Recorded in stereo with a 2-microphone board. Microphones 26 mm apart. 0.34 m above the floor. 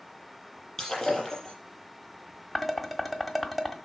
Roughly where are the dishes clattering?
Centre.